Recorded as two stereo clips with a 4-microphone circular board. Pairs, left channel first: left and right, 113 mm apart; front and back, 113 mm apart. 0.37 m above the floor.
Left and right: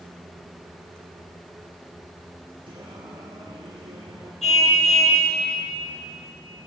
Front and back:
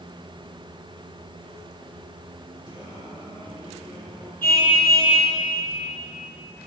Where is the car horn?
75° left, 5 m.